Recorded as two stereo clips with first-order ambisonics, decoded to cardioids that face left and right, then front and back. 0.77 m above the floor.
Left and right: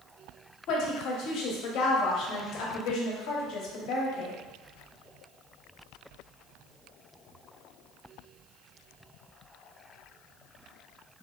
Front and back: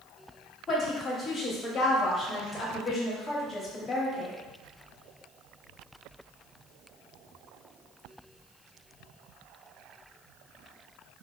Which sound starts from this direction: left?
A woman speaking, at 0.7 s.